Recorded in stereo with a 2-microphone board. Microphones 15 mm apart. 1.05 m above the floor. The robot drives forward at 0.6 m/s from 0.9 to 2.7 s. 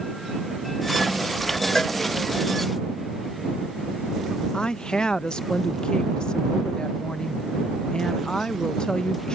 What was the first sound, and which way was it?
A cowbell, 35° left (ahead or behind).